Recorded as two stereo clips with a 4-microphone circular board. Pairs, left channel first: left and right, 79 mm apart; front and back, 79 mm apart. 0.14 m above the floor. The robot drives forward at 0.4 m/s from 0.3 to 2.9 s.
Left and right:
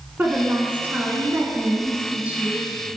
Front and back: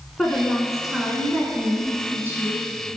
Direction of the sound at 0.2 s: 80° right.